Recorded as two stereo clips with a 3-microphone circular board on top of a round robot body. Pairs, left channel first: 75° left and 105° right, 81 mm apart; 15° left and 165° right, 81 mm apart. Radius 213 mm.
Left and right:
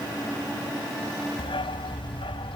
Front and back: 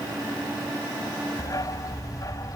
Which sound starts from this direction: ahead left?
A dog barking, at 1.4 s.